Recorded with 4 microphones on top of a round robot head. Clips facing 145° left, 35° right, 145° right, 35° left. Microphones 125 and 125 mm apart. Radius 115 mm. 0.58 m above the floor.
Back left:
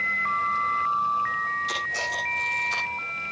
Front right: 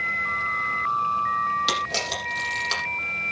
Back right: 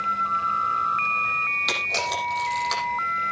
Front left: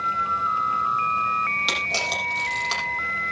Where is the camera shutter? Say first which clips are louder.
Front right 4 dB, back right 1 dB; 50° right, 8 m.